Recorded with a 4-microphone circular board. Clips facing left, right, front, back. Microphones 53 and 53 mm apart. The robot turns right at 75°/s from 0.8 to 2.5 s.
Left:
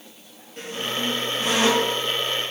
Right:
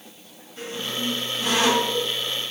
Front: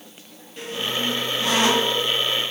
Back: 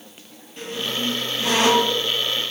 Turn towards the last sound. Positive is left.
turn(degrees=-150)